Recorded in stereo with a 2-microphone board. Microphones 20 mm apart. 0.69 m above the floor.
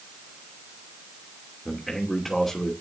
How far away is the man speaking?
About 2.5 m.